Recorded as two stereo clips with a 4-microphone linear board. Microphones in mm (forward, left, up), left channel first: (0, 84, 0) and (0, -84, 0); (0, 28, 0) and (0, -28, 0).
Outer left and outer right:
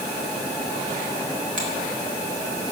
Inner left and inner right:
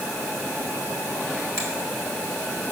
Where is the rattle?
No rattle in this recording.